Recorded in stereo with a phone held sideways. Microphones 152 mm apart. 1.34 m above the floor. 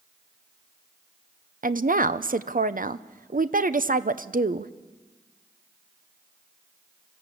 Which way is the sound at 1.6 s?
65° right (ahead or behind).